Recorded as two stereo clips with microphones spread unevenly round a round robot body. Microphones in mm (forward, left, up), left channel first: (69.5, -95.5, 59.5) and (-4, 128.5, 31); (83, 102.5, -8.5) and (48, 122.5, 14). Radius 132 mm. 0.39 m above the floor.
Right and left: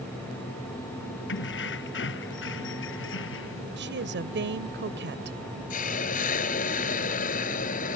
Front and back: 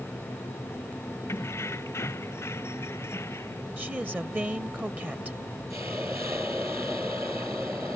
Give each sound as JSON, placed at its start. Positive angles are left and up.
{"t": 1.3, "sound": "keys jangling", "azimuth_deg": -30}
{"t": 3.8, "sound": "a woman speaking", "azimuth_deg": 85}
{"t": 5.7, "sound": "a hiss", "azimuth_deg": -130}